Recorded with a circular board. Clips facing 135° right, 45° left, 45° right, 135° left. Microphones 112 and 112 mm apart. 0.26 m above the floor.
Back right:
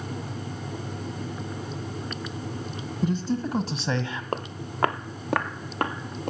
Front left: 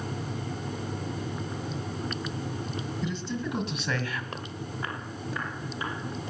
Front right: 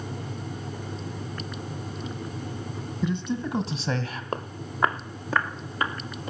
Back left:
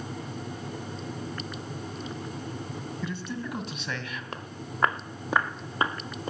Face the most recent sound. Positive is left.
turn(degrees=-165)